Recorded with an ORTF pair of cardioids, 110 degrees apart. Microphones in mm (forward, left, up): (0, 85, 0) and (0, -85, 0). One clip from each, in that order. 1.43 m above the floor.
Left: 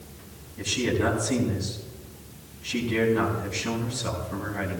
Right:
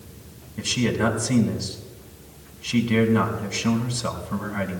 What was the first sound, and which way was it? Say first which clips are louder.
A man speaking: right 2 dB; 45° right.